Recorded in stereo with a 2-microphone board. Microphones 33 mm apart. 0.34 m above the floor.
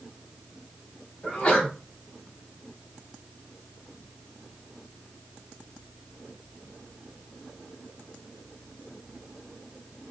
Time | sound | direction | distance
1.2 | a sneeze | 35° left (ahead or behind) | 2.5 m